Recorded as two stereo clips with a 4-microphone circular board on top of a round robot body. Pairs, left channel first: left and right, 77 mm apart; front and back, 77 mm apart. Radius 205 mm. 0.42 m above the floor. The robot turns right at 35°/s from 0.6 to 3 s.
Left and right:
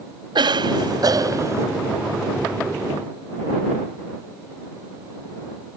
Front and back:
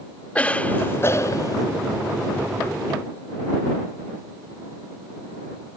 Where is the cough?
75° right; by 1.6 s 35° right.